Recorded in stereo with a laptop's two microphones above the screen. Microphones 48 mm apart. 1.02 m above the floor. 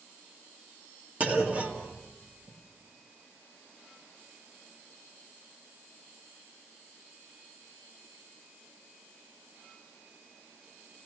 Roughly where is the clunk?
Right.